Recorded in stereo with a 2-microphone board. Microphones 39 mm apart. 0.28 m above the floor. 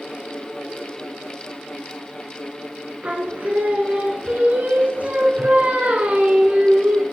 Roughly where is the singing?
Right.